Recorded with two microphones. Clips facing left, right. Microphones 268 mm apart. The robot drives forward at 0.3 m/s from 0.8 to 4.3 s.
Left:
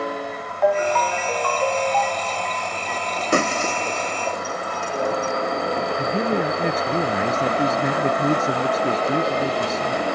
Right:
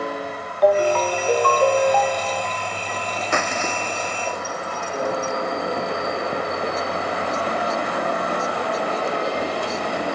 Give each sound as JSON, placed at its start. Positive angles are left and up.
{"t": 0.6, "sound": "a ringtone", "side_deg": -40}
{"t": 3.3, "sound": "breaking glass", "side_deg": 40}
{"t": 6.0, "sound": "a man speaking", "side_deg": 75}